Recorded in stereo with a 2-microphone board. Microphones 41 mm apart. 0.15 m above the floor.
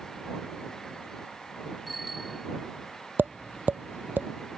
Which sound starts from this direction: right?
Tapping, at 3.2 s.